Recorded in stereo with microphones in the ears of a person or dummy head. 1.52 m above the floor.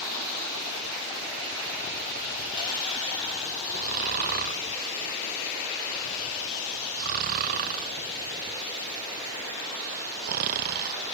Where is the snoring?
45° right (ahead or behind).